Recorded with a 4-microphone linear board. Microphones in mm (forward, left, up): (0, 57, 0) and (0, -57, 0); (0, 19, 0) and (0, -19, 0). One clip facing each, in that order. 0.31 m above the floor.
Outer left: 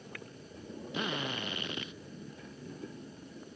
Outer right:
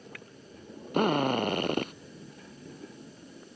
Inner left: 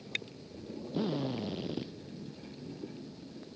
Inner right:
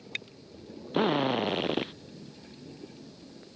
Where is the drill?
50° right (ahead or behind).